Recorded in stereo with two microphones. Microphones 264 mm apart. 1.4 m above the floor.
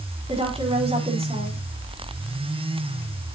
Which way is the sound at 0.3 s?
20° right (ahead or behind).